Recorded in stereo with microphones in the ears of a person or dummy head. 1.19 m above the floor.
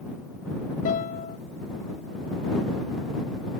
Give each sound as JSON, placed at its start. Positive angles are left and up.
{"t": 0.8, "sound": "a guitar", "side_deg": 45}